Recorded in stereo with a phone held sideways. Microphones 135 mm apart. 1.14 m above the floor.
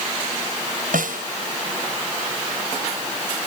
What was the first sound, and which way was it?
A snare drum, 85° right.